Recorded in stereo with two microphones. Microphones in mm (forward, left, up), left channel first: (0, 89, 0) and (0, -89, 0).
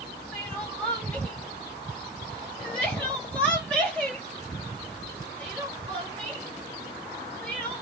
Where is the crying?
5° left (ahead or behind), 1.2 m.